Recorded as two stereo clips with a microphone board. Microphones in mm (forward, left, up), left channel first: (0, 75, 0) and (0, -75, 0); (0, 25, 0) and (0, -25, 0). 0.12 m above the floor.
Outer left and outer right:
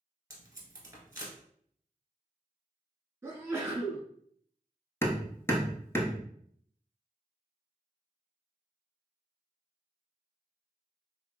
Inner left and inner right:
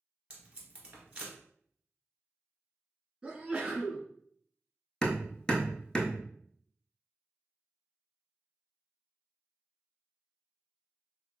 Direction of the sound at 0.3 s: 20° right (ahead or behind).